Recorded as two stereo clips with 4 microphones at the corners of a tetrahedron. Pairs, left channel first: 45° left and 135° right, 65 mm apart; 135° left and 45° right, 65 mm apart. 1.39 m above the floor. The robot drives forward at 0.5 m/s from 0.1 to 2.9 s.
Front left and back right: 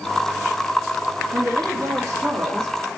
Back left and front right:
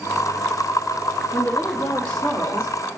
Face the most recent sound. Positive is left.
turn(degrees=180)